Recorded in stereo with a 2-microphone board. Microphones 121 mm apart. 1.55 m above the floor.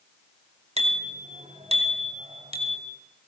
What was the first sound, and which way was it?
A bicycle bell, 65° right (ahead or behind).